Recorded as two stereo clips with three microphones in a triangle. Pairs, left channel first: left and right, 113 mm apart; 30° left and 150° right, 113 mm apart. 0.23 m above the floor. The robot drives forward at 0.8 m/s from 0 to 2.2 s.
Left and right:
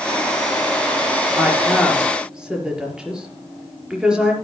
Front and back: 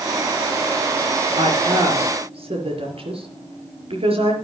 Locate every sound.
1.4 s a woman speaking: 170° right, 4 m